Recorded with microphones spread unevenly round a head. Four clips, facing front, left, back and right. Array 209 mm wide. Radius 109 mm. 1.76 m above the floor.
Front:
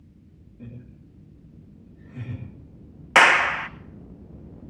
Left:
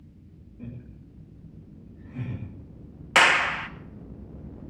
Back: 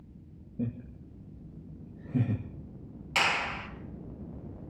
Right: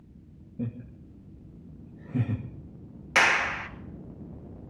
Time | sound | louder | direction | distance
0.6 | laughter | right 6 dB, back 8 dB | 140° right | 3 m
3.1 | a clap | left 4 dB, front 13 dB | 5° left | 1.1 m